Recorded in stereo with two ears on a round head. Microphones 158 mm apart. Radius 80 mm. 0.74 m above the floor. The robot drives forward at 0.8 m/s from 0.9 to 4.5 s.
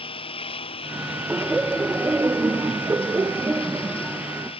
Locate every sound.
0.0 s a lawn mower: 30° left (ahead or behind)
1.3 s laughter: 5° right (ahead or behind)